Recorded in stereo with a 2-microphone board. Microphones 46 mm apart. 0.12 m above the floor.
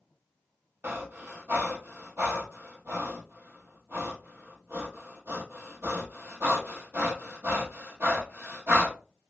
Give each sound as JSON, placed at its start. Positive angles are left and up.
{"t": 0.8, "sound": "breathing", "side_deg": -60, "distance_m": 0.8}